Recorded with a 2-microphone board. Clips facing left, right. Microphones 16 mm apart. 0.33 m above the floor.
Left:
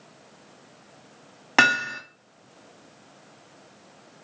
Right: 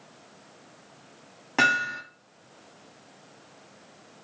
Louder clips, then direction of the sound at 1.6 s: Left 3 dB; 40° left (ahead or behind).